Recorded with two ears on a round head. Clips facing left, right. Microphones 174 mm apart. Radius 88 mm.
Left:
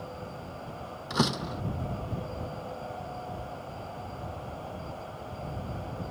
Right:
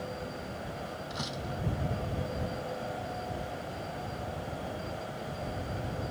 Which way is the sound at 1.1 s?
70° left (ahead or behind).